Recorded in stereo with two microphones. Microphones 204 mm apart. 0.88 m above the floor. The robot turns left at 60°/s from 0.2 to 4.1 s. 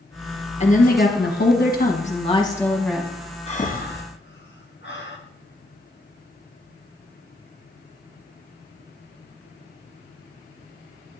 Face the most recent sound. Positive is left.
turn(degrees=60)  # may be behind; listen again after turning